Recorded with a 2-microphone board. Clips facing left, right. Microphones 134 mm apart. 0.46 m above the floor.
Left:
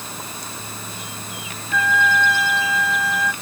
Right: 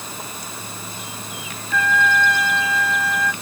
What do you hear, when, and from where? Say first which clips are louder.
1.7 s a trumpet: even; centre (ahead or behind)